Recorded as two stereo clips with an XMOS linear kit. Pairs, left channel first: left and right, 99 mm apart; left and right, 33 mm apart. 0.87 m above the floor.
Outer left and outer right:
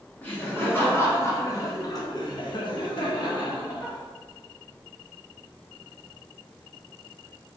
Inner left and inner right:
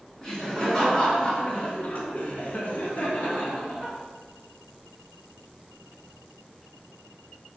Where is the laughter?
20° left (ahead or behind), 1.5 m; by 4.0 s 40° left (ahead or behind), 1.0 m.